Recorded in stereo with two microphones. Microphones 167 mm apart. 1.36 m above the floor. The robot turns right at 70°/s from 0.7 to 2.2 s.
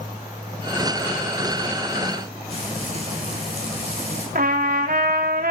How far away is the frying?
About 7 m.